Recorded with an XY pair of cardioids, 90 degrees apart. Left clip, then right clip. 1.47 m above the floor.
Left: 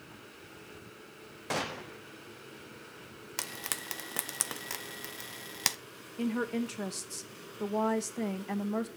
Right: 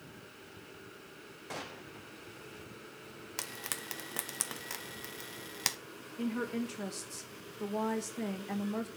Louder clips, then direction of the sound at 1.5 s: Left 9 dB; 70° left.